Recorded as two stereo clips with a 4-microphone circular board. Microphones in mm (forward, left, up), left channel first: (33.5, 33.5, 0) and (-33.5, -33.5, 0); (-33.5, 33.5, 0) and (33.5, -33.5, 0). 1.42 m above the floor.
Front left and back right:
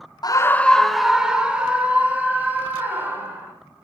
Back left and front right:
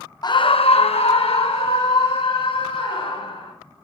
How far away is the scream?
About 0.7 m.